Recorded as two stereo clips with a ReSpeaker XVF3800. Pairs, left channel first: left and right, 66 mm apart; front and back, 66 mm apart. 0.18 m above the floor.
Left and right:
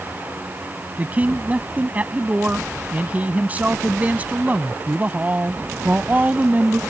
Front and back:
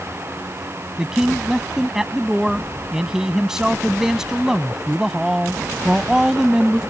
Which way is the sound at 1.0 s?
110° right.